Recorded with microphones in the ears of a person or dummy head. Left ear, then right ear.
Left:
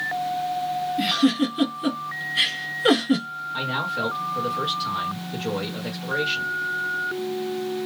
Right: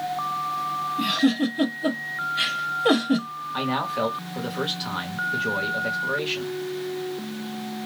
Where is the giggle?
50° left (ahead or behind), 1.6 m.